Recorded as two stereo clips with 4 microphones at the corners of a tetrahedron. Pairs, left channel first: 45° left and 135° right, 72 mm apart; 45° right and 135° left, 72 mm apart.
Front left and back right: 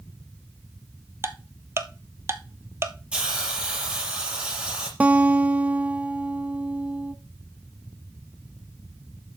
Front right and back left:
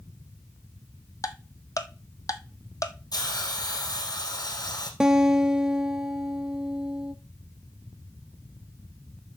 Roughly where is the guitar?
Behind.